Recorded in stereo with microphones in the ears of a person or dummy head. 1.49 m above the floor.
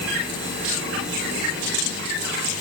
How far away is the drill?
I don't hear a drill.